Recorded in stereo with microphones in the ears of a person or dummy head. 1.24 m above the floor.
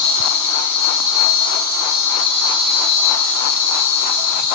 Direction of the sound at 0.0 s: 75° right (ahead or behind).